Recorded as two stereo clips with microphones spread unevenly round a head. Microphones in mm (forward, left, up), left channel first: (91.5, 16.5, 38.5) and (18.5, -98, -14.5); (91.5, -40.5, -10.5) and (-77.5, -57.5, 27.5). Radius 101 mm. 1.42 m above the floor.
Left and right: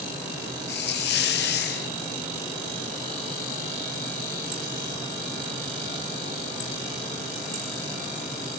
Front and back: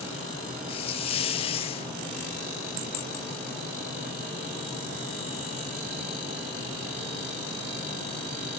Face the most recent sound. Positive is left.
turn(degrees=55)